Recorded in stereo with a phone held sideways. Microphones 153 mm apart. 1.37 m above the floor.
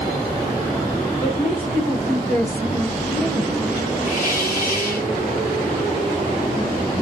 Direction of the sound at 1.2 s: 50° left (ahead or behind).